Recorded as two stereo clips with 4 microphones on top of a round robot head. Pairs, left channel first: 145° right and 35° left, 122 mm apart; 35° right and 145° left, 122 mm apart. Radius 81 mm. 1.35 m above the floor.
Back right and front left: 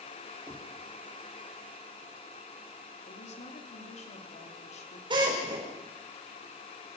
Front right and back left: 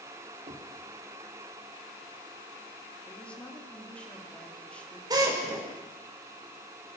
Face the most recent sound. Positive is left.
turn(degrees=85)